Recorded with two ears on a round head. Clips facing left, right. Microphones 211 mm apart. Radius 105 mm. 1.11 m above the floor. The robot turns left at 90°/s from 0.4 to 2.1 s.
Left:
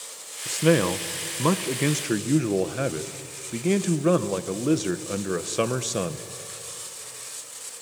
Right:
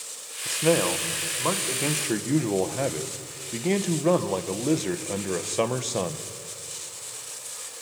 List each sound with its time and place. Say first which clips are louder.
0.5 s a man speaking: left 2 dB; 165° left, 0.9 m; by 6.3 s 15° left, 0.9 m